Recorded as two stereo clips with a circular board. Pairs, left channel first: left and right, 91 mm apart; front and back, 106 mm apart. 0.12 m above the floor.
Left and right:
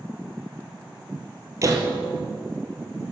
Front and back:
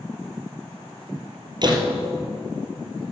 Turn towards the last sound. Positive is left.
turn(degrees=-140)